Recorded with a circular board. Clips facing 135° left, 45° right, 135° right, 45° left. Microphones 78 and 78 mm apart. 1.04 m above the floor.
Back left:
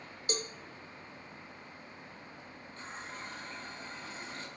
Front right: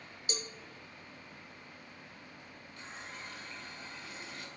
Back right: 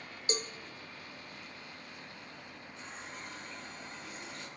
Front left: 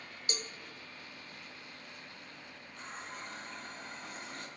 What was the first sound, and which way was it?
A cowbell, 170° left.